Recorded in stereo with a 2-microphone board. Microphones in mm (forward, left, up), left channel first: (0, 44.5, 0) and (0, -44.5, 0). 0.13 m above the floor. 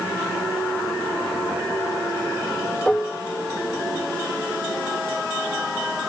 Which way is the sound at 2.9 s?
10° left (ahead or behind).